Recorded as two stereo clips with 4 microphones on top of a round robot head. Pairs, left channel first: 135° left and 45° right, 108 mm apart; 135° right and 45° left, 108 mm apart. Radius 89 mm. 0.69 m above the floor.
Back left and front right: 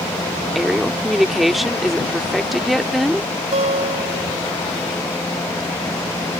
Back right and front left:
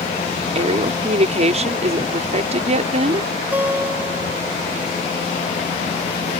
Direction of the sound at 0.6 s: 40° left.